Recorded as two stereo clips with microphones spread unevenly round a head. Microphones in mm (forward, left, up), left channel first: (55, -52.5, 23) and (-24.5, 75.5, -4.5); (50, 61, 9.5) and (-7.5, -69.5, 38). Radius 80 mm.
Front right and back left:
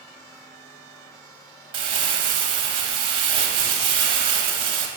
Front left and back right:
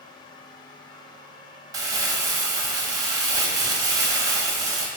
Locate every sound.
1.7 s crumpling: 175° right, 0.6 m